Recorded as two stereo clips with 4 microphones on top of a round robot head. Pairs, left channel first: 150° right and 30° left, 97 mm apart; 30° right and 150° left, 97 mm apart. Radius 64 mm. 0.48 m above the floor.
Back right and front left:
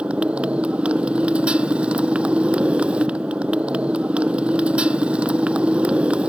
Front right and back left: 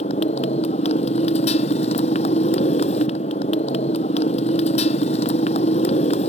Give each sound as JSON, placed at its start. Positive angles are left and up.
{"t": 0.0, "sound": "a motorcycle", "azimuth_deg": -50}